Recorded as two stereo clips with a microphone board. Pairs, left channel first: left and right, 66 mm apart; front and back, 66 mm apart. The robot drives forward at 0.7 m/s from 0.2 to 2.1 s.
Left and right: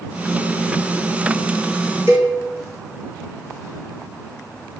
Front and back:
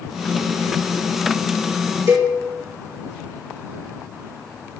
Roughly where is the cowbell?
Behind right.